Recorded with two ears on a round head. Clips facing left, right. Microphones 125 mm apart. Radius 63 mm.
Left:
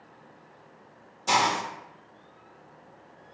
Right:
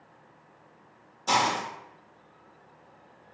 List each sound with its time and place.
1.3 s a hiss: 5° left (ahead or behind), 0.6 m